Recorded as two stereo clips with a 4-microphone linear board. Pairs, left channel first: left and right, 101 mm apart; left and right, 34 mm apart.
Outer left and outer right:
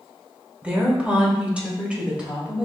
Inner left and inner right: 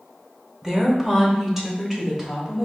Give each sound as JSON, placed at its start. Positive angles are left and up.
{"t": 0.6, "sound": "a woman speaking", "side_deg": -15, "distance_m": 0.9}